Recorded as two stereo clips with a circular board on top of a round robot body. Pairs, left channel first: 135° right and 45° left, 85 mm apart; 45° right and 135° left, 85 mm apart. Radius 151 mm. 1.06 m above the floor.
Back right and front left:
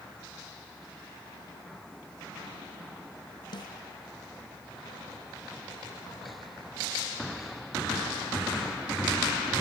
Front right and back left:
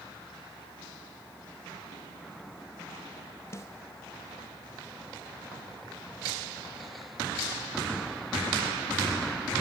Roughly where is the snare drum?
Right.